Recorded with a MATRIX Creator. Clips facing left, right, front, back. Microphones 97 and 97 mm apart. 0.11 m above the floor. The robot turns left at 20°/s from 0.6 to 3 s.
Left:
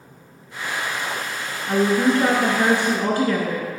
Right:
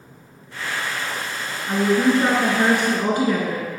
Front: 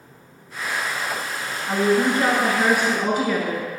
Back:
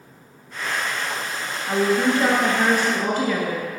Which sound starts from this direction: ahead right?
A woman speaking, at 1.7 s.